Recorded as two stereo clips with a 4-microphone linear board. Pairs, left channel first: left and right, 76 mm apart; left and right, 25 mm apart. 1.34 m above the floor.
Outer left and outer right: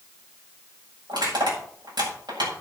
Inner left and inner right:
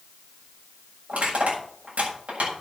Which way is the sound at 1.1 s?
90° right.